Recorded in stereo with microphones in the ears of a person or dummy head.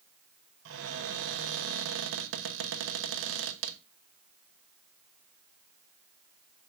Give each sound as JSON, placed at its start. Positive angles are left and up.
{"t": 0.7, "sound": "a cupboard door", "side_deg": -70, "distance_m": 1.0}